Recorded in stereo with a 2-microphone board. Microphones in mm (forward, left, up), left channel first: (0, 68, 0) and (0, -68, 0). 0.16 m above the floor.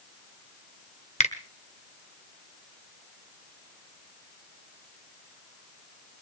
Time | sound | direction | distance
1.2 | a finger snap | 55° left (ahead or behind) | 1.6 m